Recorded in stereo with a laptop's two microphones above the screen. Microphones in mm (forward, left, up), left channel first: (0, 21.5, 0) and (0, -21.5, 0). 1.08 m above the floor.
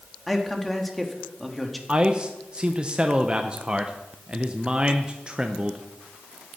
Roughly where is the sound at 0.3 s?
Centre.